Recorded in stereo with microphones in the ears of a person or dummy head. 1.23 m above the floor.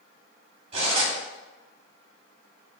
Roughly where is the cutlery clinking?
Right.